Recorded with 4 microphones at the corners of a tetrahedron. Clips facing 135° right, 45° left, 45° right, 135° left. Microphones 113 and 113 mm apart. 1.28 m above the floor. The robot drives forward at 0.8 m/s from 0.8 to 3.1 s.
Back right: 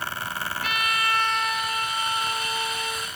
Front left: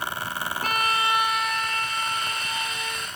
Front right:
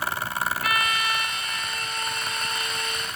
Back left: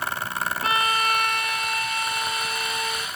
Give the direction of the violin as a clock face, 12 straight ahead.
9 o'clock.